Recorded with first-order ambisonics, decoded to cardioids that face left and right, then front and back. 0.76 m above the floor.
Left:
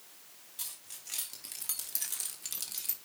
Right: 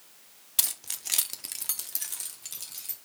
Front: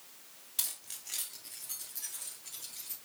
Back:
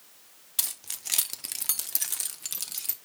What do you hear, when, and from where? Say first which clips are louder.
0.6 s keys jangling: right 13 dB, back 6 dB; 110° right, 0.9 m; by 3.0 s 165° left, 1.5 m